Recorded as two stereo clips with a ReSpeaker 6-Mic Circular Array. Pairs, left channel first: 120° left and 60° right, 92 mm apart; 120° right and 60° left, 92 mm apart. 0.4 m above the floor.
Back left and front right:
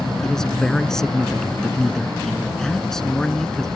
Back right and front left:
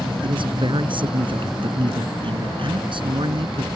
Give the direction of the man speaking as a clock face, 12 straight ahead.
11 o'clock.